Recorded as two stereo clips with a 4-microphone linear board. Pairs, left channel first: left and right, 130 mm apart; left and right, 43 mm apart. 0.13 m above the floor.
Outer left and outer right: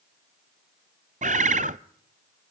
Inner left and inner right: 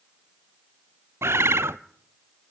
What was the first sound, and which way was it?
A bird, 75° right (ahead or behind).